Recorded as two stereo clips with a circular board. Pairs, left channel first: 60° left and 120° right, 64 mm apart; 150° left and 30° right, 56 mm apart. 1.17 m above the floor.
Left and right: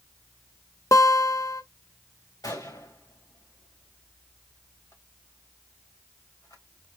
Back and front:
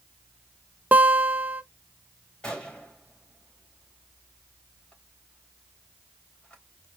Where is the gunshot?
75° left, 3.5 m.